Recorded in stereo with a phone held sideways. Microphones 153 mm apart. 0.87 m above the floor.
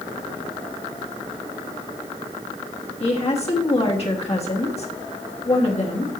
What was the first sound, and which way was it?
A woman speaking, 45° left (ahead or behind).